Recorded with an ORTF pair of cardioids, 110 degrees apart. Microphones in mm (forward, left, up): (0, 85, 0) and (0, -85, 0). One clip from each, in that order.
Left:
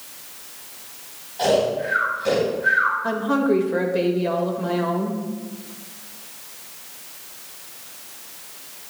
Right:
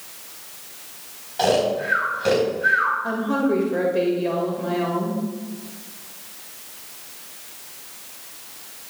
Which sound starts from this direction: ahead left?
A woman speaking, at 3.0 s.